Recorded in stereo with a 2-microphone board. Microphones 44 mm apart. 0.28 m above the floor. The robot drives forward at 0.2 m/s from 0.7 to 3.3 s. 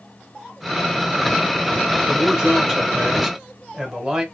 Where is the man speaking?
15° right (ahead or behind), 1.1 m; by 4.2 s 20° right (ahead or behind), 1.1 m.